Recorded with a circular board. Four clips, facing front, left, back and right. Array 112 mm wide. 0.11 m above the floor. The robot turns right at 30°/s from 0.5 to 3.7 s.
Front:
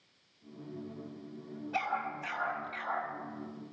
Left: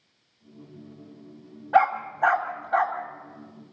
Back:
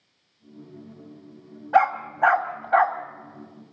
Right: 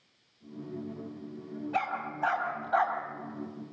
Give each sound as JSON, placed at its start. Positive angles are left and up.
{"t": 1.7, "sound": "a dog barking", "azimuth_deg": 135, "distance_m": 3.0}